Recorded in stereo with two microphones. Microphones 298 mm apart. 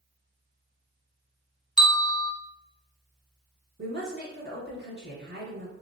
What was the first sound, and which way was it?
A bell, 75° right (ahead or behind).